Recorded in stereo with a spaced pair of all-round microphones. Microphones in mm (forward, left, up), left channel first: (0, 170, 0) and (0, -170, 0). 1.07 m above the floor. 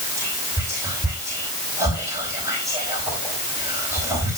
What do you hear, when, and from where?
0.2 s whispering: 10° right (ahead or behind), 3 m